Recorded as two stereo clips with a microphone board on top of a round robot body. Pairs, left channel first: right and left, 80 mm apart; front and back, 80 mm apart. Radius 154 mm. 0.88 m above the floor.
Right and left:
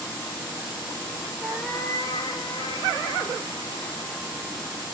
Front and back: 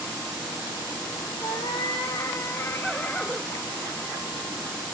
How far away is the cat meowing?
About 0.5 m.